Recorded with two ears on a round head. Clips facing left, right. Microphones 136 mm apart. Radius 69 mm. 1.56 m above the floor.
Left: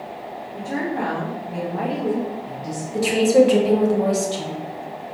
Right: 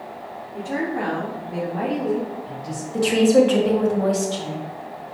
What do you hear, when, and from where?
0.5 s a woman speaking: 5° left (ahead or behind), 3 m; by 2.8 s 15° left (ahead or behind), 1.4 m
2.9 s a woman speaking: 10° left (ahead or behind), 1.7 m